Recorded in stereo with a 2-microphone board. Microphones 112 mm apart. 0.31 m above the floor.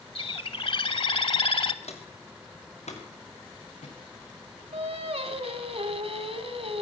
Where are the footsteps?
75° left (ahead or behind), 2.5 m; by 5.4 s 70° left (ahead or behind), 7 m.